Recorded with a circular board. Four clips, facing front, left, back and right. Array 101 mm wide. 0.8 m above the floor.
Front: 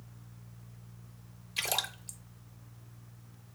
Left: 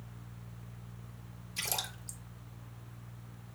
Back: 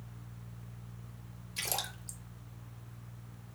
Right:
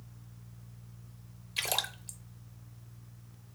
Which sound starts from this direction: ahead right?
A splash, at 1.6 s.